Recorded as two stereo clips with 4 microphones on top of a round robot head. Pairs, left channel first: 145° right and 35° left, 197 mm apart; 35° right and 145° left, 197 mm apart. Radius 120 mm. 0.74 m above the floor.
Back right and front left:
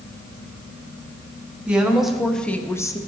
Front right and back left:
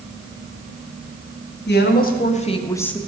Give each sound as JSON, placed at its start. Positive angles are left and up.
{"t": 1.7, "sound": "a woman speaking", "azimuth_deg": -50, "distance_m": 1.9}